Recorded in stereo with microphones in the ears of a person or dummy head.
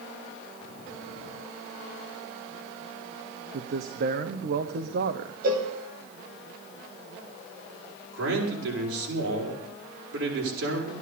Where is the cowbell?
45° right (ahead or behind), 1.9 m.